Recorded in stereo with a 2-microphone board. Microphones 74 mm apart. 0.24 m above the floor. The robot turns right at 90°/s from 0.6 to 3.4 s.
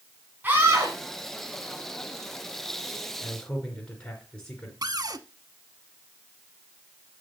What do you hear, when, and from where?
0.4 s a scream: 150° right, 2.5 m; by 1.0 s 120° right, 2.5 m
3.2 s a man speaking: 35° left (ahead or behind), 3 m; by 4.7 s 25° left (ahead or behind), 3 m
4.8 s a cupboard door: 55° right (ahead or behind), 0.7 m